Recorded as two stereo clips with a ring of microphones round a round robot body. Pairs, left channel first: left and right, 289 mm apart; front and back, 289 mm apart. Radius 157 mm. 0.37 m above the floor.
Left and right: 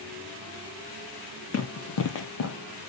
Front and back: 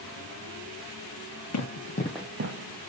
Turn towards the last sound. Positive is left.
turn(degrees=165)